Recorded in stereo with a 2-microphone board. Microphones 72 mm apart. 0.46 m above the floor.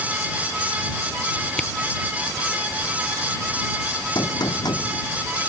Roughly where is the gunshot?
Left.